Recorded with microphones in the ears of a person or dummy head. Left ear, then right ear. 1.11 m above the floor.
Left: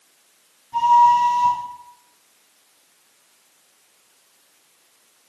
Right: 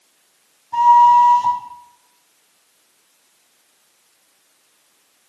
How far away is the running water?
I don't hear running water.